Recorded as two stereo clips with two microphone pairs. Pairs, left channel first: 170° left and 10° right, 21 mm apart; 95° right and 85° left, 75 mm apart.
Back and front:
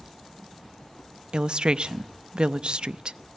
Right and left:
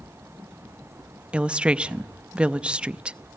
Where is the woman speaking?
15° left, 0.6 m.